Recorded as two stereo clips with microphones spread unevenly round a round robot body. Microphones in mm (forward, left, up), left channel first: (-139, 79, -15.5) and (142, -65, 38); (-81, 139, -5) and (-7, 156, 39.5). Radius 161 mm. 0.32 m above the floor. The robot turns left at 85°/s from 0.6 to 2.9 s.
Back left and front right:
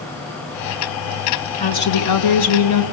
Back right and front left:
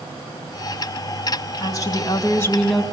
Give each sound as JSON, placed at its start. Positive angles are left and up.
{"t": 1.6, "sound": "a woman speaking", "azimuth_deg": -135, "distance_m": 3.0}